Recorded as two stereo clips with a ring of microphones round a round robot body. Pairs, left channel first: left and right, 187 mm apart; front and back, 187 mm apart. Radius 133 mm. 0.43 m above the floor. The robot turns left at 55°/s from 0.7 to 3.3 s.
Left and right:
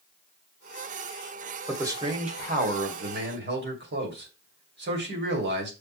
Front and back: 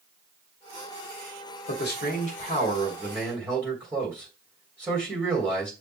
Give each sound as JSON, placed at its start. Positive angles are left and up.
{"t": 1.7, "sound": "a man speaking", "azimuth_deg": -10, "distance_m": 2.5}